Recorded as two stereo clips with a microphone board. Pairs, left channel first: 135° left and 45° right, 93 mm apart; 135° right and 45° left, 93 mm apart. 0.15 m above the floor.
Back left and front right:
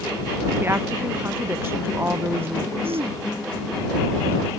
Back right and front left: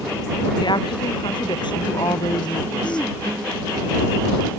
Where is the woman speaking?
110° right.